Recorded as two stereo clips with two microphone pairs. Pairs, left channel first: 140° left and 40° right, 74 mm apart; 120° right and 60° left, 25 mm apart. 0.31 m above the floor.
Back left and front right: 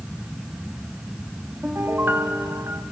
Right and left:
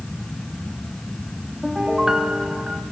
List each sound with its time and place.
1.6 s a piano: 10° left, 1.6 m